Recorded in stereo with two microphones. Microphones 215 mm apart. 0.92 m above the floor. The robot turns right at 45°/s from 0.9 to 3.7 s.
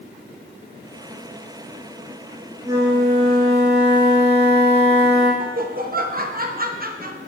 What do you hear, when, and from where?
2.6 s a flute: 170° right, 2.5 m; by 5.3 s 120° right, 2.5 m
5.4 s laughter: 45° right (ahead or behind), 1.1 m